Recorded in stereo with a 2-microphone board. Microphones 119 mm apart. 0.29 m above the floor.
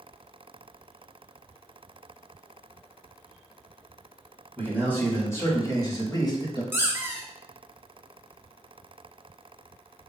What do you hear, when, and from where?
4.6 s a man speaking: 15° left (ahead or behind), 1.8 m; by 6.6 s 40° left (ahead or behind), 1.3 m
6.7 s a squeak: 20° right (ahead or behind), 0.7 m